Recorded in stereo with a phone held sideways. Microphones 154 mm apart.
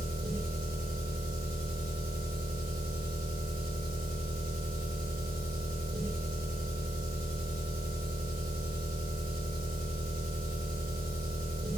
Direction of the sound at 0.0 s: 70° right (ahead or behind).